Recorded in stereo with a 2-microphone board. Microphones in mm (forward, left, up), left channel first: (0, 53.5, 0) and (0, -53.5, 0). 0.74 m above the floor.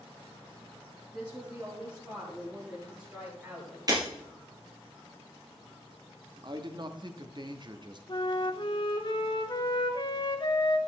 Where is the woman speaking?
30° right (ahead or behind), 4 m; by 3.8 s 15° right (ahead or behind), 5 m.